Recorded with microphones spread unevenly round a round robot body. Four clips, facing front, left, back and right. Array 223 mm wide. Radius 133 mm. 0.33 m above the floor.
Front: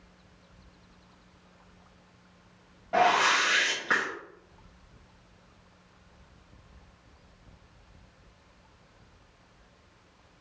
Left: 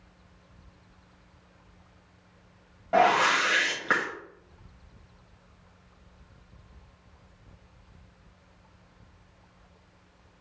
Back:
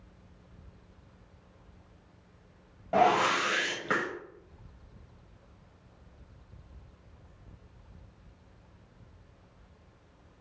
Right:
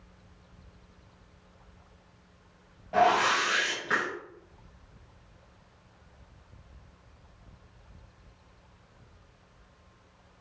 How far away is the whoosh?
About 1.4 m.